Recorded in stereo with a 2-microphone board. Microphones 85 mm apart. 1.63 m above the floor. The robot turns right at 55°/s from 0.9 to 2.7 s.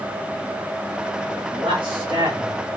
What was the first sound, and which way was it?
A man speaking, 100° right.